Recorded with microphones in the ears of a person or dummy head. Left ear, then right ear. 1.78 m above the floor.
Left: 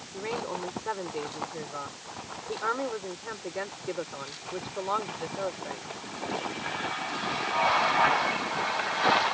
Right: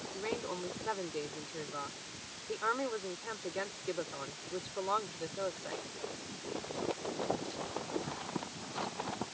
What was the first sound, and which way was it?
A woman speaking, 10° left (ahead or behind).